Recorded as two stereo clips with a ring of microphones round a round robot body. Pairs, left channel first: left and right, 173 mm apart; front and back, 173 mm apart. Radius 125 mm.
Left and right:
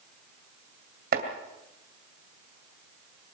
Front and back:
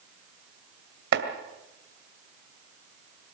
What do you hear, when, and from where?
1.1 s chopping: 145° right, 2 m